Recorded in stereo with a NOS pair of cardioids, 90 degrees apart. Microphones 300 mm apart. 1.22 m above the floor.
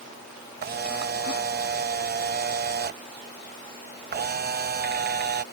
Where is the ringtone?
I don't hear a ringtone.